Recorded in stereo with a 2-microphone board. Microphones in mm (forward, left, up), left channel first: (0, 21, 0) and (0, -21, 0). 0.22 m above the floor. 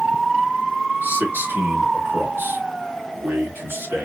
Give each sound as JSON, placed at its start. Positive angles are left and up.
{"t": 1.0, "sound": "a man speaking", "side_deg": -55, "distance_m": 3.0}